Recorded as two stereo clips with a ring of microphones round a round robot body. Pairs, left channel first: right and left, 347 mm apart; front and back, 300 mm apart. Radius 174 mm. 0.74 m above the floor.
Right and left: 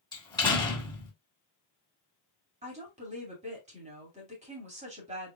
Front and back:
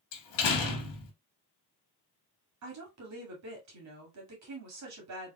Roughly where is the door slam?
Ahead.